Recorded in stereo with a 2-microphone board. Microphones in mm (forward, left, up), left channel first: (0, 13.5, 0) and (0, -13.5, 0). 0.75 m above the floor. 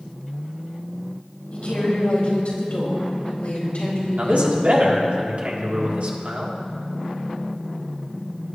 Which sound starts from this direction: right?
A man speaking, at 4.2 s.